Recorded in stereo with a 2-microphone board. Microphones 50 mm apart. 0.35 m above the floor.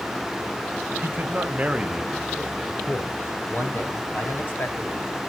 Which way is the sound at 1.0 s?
50° right (ahead or behind).